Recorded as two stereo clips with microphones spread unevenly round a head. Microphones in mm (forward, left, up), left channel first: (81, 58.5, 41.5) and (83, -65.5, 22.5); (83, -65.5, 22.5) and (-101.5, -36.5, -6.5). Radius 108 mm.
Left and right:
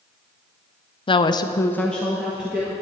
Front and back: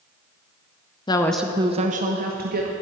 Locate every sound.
1.1 s a woman speaking: 55° left, 0.6 m; by 2.7 s 165° right, 1.3 m